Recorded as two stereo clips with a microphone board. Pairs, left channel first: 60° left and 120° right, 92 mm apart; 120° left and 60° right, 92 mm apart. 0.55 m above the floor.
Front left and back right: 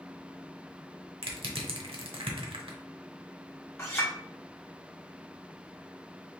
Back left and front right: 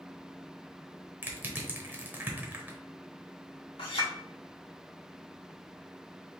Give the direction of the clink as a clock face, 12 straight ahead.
8 o'clock.